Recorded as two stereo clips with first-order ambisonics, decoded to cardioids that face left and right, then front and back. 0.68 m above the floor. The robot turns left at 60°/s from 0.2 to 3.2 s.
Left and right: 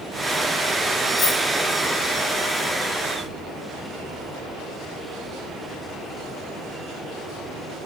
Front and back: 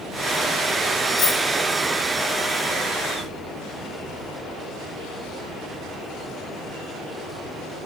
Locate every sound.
1.2 s a dropped coin: 25° left, 4.5 m; by 1.4 s 10° left, 4.5 m